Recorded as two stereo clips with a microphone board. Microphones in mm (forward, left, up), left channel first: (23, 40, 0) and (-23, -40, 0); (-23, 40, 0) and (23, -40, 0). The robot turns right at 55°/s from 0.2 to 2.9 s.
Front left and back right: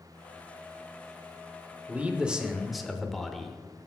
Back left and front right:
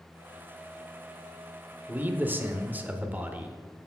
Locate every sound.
1.9 s a man speaking: 80° right, 0.8 m; by 3.9 s 25° right, 0.8 m